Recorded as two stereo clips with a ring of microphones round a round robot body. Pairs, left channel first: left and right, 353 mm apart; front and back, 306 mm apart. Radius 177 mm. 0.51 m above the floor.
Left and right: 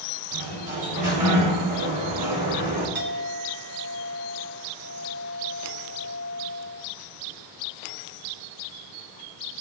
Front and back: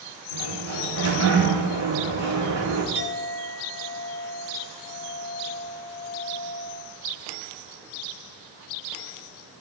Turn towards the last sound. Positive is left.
turn(degrees=-150)